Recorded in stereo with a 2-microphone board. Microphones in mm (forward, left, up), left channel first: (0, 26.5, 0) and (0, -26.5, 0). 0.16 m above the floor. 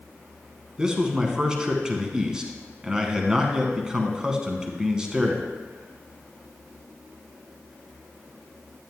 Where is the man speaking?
15° right (ahead or behind), 1.1 m.